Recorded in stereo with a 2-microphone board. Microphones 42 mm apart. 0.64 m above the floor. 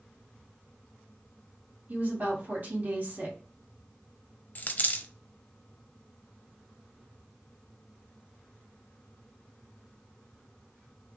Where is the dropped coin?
40° left (ahead or behind), 0.5 m.